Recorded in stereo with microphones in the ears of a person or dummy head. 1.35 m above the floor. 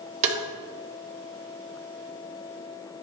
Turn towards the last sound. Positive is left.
turn(degrees=-40)  # may be behind; listen again after turning